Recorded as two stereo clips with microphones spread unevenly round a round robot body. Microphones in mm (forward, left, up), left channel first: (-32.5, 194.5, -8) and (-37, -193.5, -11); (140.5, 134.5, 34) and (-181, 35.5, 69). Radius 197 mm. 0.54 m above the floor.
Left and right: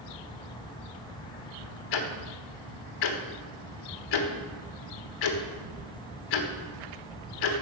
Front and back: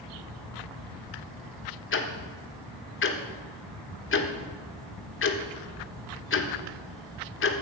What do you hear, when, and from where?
1.9 s ticking: 65° left, 1.3 m